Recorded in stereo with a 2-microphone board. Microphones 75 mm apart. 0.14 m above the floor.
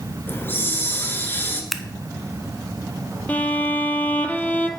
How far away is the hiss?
About 1.3 m.